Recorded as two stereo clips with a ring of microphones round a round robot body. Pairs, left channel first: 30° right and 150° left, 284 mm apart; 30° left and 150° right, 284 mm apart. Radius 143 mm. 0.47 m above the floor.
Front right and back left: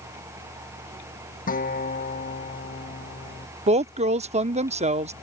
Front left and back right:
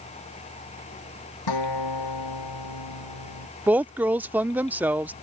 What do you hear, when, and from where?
1.5 s a guitar: 35° left
3.7 s a woman speaking: 135° left